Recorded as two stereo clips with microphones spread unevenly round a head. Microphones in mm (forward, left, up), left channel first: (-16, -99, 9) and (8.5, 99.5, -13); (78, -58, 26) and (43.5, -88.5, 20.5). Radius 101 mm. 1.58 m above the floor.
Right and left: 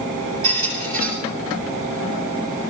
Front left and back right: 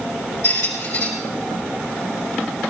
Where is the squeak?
60° left, 7 m.